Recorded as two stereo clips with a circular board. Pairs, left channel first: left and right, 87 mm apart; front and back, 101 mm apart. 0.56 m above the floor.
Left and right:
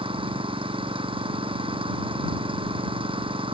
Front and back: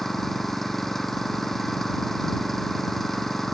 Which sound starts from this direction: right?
An engine running, at 0.0 s.